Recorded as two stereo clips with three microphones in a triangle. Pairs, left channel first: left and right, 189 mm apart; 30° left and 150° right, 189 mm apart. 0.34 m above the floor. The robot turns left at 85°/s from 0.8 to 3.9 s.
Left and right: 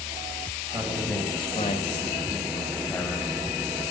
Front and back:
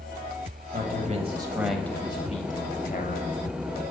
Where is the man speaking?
160° right, 1.4 m; by 3.3 s 15° right, 1.4 m.